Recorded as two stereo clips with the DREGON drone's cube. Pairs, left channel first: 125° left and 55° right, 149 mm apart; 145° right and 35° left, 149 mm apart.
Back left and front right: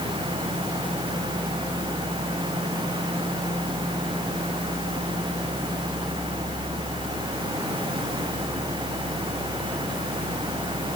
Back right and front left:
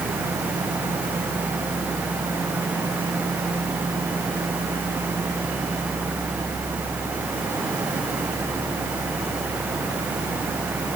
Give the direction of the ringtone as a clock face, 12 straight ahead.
No ringtone in this recording.